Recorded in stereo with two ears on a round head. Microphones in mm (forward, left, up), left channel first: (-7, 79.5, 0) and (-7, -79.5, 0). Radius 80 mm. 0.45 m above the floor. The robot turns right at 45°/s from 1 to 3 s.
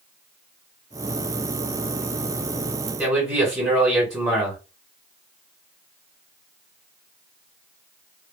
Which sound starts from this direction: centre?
A man speaking, at 3.0 s.